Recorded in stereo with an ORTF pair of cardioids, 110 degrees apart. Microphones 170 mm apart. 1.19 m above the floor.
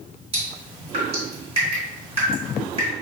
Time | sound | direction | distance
0.3 | dripping | 35° right | 2.0 m